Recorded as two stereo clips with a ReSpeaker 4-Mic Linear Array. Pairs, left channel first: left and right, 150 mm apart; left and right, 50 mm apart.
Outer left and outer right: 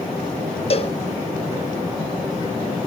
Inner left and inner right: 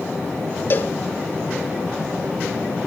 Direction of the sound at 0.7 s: 40° left (ahead or behind).